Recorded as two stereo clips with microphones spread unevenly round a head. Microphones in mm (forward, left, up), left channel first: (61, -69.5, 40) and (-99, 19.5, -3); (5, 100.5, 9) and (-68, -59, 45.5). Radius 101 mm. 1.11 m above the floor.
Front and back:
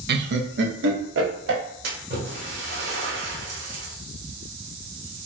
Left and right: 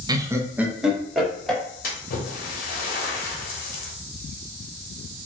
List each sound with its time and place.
0.1 s laughter: 170° left, 0.7 m; by 1.6 s 150° left, 1.6 m
1.8 s a splash: 105° left, 1.1 m